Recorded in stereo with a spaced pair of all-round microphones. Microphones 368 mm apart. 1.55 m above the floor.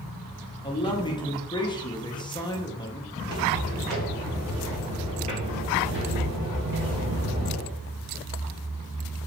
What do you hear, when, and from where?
0.6 s a man speaking: 10° left (ahead or behind), 0.7 m
3.2 s footsteps: 15° left (ahead or behind), 1.7 m; by 7.7 s 40° right (ahead or behind), 3 m